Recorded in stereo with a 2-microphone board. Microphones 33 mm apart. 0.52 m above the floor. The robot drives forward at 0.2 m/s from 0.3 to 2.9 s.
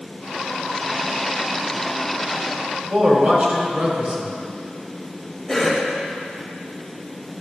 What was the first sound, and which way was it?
A man speaking, 45° right (ahead or behind).